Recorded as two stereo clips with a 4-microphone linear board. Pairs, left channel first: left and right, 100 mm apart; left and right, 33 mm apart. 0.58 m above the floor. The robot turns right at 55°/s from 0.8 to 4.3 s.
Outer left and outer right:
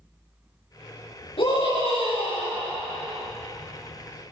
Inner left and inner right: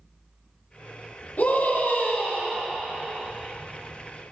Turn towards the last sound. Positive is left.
turn(degrees=-135)